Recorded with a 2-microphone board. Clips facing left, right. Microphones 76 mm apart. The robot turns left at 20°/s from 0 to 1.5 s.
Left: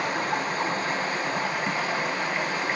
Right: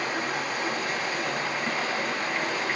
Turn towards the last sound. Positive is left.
turn(degrees=25)